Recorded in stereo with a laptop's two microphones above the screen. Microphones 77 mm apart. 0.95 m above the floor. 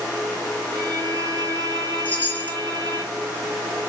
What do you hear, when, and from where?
0.7 s a violin: 55° right (ahead or behind), 0.7 m
2.0 s a chime: 25° left (ahead or behind), 1.6 m